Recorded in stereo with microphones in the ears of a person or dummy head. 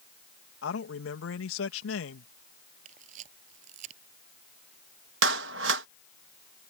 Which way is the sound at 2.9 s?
45° right (ahead or behind).